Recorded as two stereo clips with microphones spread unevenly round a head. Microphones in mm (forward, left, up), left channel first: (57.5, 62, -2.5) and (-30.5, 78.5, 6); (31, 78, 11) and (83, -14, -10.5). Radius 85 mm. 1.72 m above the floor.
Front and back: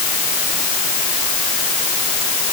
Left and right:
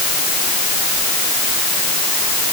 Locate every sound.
Only background noise.